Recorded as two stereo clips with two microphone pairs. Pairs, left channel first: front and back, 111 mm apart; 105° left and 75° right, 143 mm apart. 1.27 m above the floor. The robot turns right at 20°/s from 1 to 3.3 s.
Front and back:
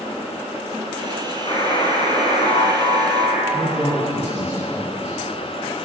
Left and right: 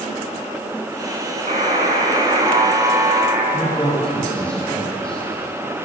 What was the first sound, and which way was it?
A buzzer, 40° right.